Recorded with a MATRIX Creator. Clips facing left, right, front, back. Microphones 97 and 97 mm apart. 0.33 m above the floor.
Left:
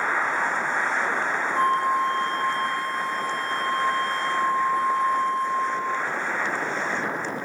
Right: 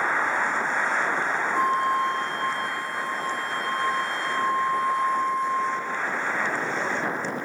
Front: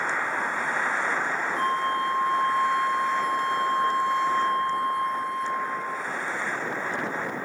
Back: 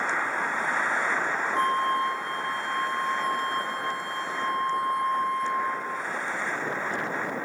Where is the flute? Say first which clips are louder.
Left 2 dB, back 1 dB; 175° right, 1.4 m.